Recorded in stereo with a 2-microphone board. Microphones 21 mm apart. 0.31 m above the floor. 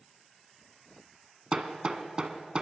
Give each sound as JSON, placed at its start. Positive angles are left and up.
{"t": 1.5, "sound": "hammering", "side_deg": -45, "distance_m": 1.4}